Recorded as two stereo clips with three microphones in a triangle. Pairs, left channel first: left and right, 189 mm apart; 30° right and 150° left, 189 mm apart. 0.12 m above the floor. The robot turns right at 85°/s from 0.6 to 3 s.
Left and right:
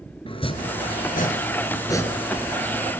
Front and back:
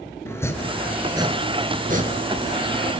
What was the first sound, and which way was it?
Chopping, 40° left.